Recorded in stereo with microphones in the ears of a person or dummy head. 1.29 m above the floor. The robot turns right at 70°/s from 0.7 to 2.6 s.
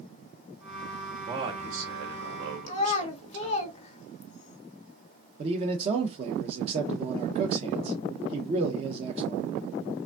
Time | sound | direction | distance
1.2 | a man speaking | 165° right | 1.1 m
2.7 | a child speaking | 40° left (ahead or behind) | 0.9 m
5.4 | a man speaking | 35° right (ahead or behind) | 0.7 m